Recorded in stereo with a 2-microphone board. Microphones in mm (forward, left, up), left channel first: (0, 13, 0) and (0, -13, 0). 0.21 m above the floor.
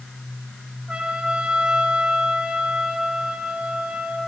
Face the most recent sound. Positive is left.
turn(degrees=-50)  # may be behind; listen again after turning